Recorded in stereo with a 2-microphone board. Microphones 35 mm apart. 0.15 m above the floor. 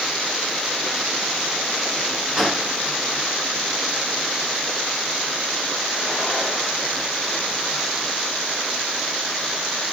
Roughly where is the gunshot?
Centre.